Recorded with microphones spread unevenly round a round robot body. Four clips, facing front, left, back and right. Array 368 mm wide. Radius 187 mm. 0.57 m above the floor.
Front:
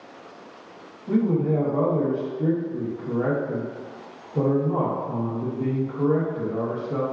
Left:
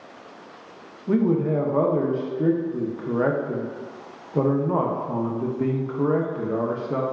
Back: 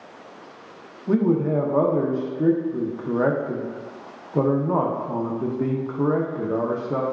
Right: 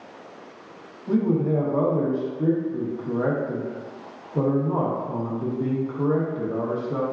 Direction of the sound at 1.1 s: 165° left.